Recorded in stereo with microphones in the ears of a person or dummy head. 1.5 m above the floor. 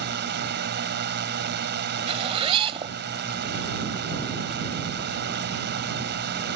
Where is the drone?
50° right (ahead or behind).